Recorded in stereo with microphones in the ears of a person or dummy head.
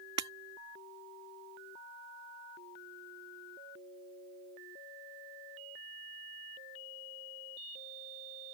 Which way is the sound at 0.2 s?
30° right (ahead or behind).